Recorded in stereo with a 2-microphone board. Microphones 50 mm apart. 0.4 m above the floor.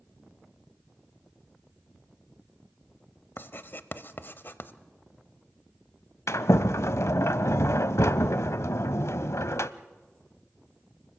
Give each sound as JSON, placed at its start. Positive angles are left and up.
{"t": 3.4, "sound": "writing", "side_deg": 50, "distance_m": 0.6}
{"t": 6.3, "sound": "a sliding door", "side_deg": 75, "distance_m": 0.5}